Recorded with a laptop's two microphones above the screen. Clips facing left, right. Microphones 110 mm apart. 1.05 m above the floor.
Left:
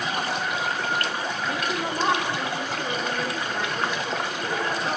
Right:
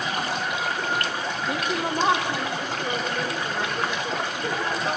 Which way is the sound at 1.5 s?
20° right (ahead or behind).